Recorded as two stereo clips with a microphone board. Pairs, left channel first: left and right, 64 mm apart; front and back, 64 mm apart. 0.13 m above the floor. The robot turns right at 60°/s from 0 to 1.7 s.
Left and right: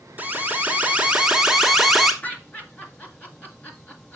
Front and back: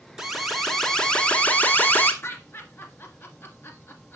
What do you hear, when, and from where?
0.2 s an alarm: 105° right, 1.2 m; by 2.1 s 10° right, 1.2 m
2.2 s laughter: 35° left, 1.8 m